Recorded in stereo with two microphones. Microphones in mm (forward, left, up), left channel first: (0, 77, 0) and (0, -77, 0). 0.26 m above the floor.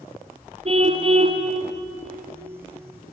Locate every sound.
0.7 s a car horn: 40° right (ahead or behind), 3 m